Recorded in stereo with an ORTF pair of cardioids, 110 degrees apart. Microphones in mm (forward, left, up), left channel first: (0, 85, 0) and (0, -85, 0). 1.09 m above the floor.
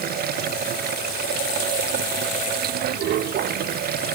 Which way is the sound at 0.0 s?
65° right.